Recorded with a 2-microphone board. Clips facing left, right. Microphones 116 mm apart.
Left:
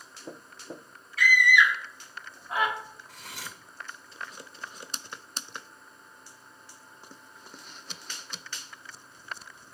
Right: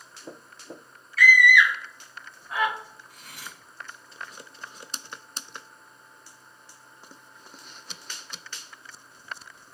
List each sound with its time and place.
1.2 s a scream: 20° left (ahead or behind), 0.8 m
3.1 s cutlery clinking: 80° left, 0.8 m